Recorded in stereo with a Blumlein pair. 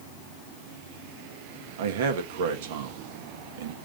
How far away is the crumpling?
I don't hear crumpling.